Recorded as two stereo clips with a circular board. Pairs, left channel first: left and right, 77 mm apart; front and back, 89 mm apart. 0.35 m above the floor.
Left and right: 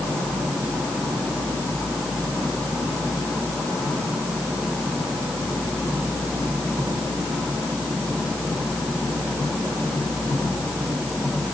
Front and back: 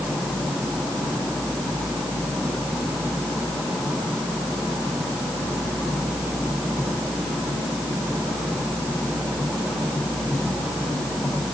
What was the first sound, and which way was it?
Only background noise.